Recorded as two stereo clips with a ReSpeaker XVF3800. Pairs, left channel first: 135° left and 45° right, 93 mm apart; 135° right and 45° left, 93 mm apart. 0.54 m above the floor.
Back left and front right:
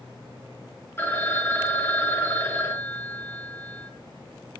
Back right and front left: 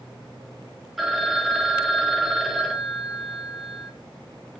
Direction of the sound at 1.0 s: 130° left.